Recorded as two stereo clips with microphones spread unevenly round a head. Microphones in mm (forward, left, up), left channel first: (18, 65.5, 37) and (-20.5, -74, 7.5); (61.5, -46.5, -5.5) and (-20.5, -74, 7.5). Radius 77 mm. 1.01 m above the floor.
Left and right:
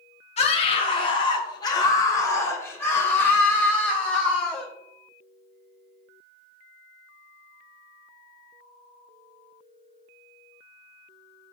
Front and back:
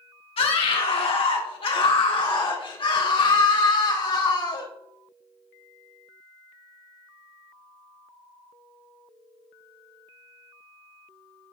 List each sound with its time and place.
0.4 s a scream: 25° left, 2 m; by 4.7 s 15° right, 3.5 m